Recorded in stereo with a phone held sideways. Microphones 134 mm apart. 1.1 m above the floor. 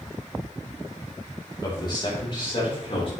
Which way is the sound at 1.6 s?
30° left (ahead or behind).